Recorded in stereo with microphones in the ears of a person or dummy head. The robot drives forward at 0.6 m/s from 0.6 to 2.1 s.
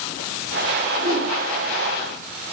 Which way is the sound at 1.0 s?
70° right (ahead or behind).